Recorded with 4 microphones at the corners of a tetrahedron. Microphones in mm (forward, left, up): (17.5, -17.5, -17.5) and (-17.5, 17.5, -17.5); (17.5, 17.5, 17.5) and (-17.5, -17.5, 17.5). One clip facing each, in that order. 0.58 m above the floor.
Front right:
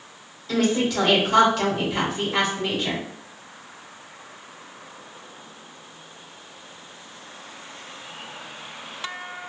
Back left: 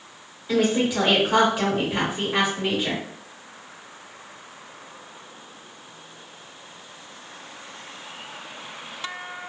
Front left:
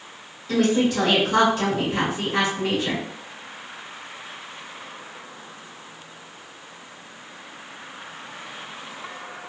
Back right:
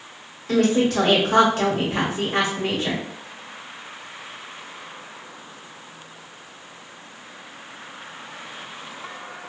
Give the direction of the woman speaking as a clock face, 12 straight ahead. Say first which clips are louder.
Back left 1 dB, back right 1 dB; 5 o'clock.